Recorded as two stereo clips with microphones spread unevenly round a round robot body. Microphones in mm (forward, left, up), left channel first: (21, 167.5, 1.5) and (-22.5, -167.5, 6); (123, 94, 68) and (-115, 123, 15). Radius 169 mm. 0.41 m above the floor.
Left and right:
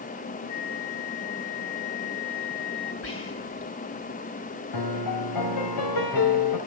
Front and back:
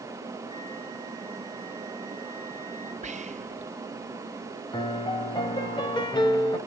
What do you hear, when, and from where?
0.5 s a flute: 70° left, 6.5 m
3.0 s whispering: 130° left, 2 m
4.7 s a piano: 70° left, 2.5 m